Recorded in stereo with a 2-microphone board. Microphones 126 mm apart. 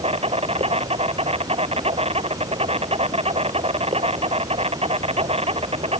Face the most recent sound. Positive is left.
turn(degrees=-55)  # may be behind; listen again after turning